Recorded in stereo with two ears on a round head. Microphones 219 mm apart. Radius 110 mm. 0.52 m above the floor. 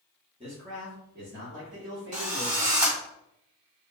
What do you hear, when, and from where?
0.4 s a man speaking: 25° right (ahead or behind), 0.9 m; by 2.7 s 60° right (ahead or behind), 1.8 m
2.1 s a drill: 30° right (ahead or behind), 1.4 m